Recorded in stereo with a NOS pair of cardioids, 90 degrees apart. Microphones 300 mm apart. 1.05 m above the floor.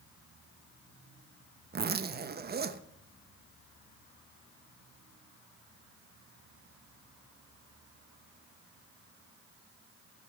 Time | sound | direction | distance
1.7 | a zipper | 35° right | 0.9 m